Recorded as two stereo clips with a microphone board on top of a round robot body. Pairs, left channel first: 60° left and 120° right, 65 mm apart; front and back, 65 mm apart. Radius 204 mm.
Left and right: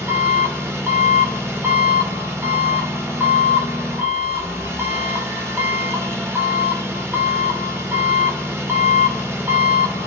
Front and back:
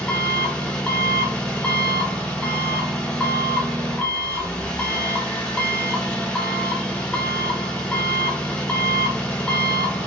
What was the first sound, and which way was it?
An engine running, 70° right.